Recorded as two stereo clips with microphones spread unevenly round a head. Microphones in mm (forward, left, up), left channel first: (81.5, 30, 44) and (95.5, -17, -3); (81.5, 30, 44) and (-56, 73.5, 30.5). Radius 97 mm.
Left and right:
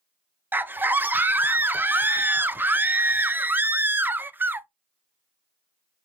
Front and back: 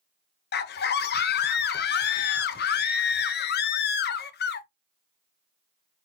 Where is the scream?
15° right, 0.6 m.